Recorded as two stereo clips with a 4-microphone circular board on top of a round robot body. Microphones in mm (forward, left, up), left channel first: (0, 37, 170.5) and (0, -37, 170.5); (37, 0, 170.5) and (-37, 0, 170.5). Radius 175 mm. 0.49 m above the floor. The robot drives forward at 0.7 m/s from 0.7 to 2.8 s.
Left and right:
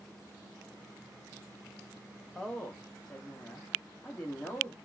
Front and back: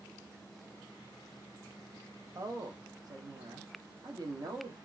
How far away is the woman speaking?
About 0.8 m.